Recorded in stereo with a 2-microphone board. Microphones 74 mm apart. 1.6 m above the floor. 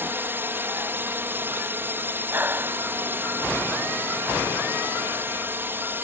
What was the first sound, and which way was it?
A drone, 25° right (ahead or behind).